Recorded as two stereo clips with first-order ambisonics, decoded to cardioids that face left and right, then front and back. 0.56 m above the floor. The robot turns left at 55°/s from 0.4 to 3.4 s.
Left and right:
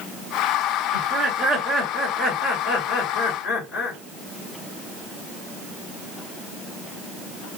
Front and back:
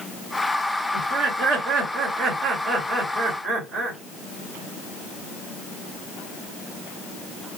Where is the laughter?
150° right, 2.5 m; by 4.0 s 75° left, 2.5 m.